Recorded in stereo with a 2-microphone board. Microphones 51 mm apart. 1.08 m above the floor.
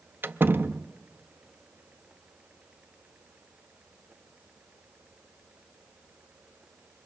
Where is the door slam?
45° right (ahead or behind), 0.6 m.